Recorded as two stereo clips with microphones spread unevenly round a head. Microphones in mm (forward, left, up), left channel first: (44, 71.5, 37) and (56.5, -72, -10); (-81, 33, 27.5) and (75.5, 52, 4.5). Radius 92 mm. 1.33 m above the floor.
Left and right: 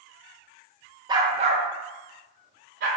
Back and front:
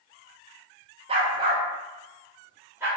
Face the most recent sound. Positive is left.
turn(degrees=-75)